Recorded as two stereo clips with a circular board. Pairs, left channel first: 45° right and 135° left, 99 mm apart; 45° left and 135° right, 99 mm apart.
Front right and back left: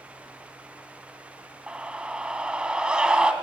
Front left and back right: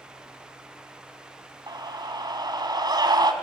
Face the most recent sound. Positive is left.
turn(degrees=-150)